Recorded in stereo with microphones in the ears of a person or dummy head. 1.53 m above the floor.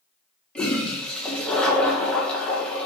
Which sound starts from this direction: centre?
A toilet flushing, at 0.6 s.